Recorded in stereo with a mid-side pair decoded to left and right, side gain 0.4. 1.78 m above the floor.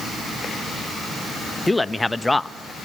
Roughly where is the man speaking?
Ahead.